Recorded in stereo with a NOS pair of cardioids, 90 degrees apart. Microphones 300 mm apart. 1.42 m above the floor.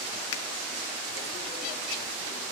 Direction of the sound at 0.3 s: 55° left.